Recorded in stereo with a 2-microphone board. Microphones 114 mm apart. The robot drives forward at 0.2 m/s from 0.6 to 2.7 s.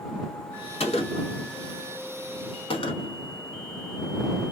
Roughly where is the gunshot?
Left.